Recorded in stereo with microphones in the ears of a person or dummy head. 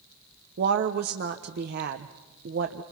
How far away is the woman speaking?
About 0.9 m.